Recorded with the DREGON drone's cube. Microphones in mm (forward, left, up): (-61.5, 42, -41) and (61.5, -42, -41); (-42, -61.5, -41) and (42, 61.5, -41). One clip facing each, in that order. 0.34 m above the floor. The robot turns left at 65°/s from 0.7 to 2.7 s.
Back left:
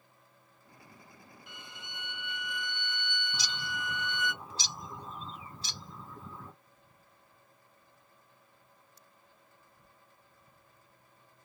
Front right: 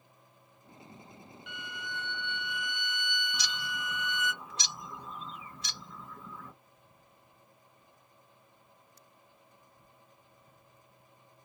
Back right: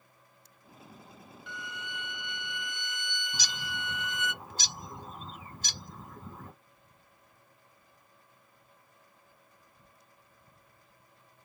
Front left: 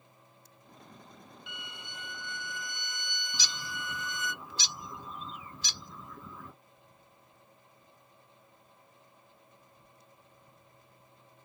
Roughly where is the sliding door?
No sliding door in this recording.